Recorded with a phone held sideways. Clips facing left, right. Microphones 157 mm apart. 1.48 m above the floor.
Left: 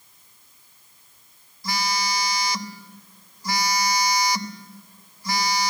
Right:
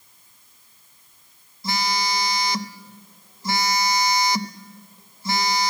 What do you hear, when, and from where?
1.6 s a phone buzzing: 25° right (ahead or behind), 1.2 m